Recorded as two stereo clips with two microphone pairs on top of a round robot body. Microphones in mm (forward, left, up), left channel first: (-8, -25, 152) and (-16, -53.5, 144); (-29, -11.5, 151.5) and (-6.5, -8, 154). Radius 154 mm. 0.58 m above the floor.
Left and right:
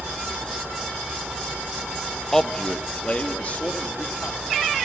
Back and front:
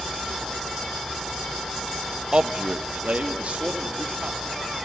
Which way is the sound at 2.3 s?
25° right.